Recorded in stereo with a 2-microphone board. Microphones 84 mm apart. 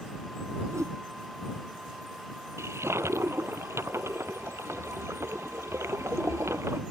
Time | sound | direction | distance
0.7 | a whoosh | 40° right (ahead or behind) | ?
2.6 | a toilet flushing | 35° right (ahead or behind) | ?